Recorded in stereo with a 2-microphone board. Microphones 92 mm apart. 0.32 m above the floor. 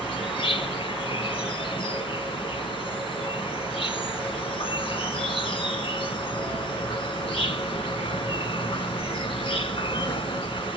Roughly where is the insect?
Left.